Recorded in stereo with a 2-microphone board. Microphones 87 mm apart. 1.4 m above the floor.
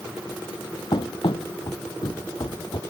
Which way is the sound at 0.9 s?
65° left (ahead or behind).